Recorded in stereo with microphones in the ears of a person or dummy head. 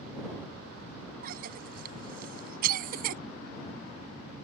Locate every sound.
1.2 s a cough: 50° right (ahead or behind)